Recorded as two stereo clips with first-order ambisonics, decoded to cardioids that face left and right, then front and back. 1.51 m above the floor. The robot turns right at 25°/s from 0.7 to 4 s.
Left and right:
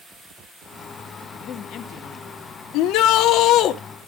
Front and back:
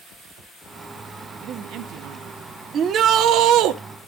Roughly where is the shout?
Behind left.